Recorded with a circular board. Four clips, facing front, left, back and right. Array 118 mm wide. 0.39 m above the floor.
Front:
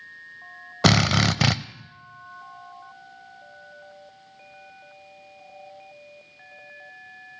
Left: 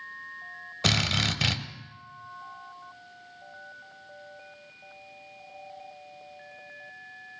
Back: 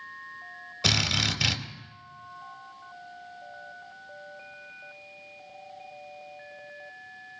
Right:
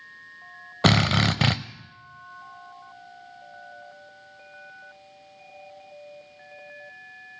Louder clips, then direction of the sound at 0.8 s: Right 8 dB, front 10 dB; 40° right.